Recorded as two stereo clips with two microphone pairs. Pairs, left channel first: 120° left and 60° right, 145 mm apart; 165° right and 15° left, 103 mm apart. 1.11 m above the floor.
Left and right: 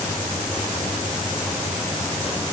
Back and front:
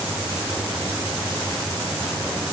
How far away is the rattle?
No rattle in this recording.